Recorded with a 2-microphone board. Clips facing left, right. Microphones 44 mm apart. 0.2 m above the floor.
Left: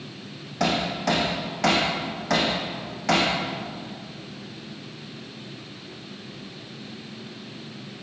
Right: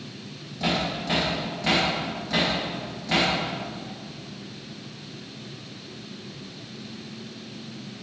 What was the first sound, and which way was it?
Hammering, 70° left (ahead or behind).